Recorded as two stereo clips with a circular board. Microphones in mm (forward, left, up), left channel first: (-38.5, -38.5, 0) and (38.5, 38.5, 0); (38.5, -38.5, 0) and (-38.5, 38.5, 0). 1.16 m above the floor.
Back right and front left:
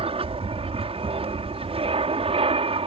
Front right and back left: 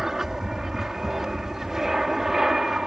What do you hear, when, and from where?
0.0 s an aircraft: 50° left